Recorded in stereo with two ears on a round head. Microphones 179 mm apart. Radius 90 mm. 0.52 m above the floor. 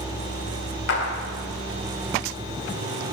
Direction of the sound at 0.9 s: 60° left (ahead or behind).